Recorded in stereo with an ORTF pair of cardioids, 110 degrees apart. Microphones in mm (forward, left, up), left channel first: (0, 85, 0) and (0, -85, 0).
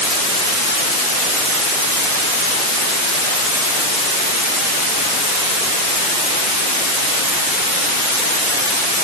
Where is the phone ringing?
I don't hear a phone ringing.